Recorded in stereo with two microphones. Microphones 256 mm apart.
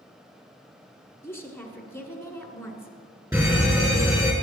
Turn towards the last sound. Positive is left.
turn(degrees=-10)  # may be behind; listen again after turning